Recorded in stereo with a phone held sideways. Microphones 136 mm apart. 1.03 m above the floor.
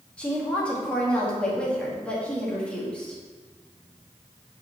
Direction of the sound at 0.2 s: 10° left (ahead or behind).